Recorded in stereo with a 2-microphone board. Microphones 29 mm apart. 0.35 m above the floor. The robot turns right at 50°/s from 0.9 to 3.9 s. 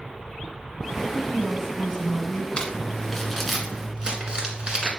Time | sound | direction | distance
1.1 | a woman speaking | straight ahead | 2 m
2.6 | crumpling | 35° left (ahead or behind) | 1.7 m